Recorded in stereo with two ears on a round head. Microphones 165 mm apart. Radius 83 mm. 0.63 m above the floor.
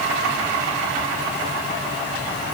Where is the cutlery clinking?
No cutlery clinking in this recording.